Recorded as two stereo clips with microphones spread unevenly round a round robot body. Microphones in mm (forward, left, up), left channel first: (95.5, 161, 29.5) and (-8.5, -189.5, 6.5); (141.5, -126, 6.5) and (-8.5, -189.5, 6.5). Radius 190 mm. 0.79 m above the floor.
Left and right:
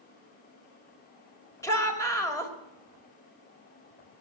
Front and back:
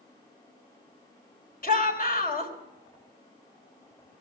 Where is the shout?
10° right, 3.5 m.